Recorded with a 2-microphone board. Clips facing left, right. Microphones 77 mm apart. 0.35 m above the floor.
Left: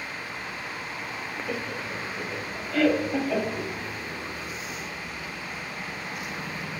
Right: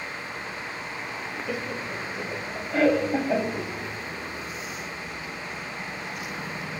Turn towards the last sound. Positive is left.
turn(degrees=-30)  # may be behind; listen again after turning